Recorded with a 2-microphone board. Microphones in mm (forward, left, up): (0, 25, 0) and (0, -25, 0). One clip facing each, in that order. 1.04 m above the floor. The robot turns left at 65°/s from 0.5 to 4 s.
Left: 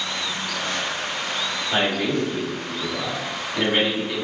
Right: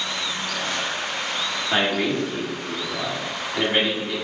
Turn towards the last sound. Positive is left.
turn(degrees=15)  # may be behind; listen again after turning